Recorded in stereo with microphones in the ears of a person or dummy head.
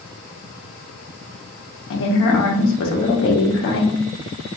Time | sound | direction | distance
1.9 | a woman speaking | 65° left (ahead or behind) | 1.1 m